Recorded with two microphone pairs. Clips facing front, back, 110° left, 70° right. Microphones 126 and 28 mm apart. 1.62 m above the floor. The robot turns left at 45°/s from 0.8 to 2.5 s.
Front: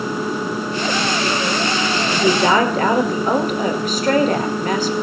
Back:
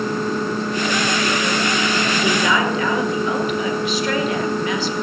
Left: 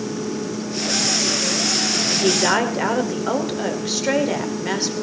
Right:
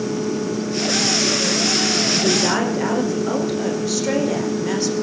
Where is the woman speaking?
60° left, 5 m; by 4.9 s 45° left, 5 m.